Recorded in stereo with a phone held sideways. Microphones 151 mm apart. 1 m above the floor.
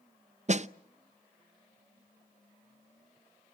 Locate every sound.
0.5 s a snare drum: 50° right (ahead or behind), 0.5 m